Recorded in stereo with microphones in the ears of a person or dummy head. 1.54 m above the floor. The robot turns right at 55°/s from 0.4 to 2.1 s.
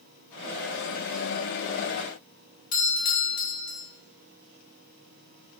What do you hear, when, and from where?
2.7 s a doorbell: 40° left (ahead or behind), 0.7 m